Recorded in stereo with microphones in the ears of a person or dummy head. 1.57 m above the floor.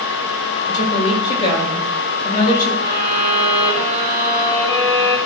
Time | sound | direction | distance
0.7 | a woman speaking | 35° left (ahead or behind) | 3 m
2.8 | a violin | 20° right (ahead or behind) | 2.5 m